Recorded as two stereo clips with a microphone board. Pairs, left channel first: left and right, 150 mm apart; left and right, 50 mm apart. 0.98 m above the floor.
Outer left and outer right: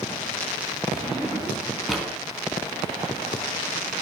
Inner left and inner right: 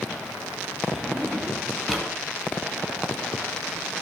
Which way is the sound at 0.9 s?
Centre (ahead or behind).